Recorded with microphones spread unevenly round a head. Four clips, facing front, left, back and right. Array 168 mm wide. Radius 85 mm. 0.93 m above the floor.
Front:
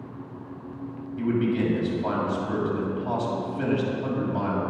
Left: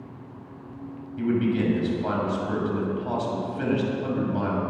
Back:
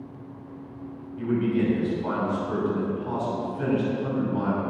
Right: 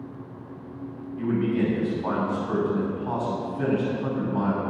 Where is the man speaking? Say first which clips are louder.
Left 1 dB, even; 50° left, 6 m.